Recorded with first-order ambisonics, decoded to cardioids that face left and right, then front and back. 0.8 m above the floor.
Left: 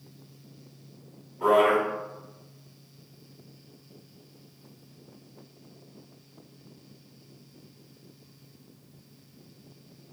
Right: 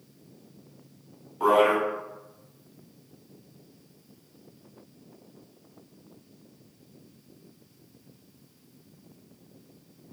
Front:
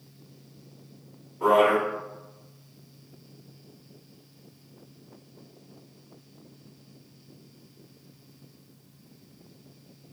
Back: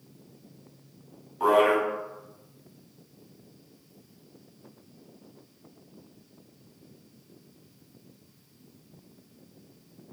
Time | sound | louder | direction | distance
1.4 | a man speaking | even, front 1 dB | 130° right | 1.6 m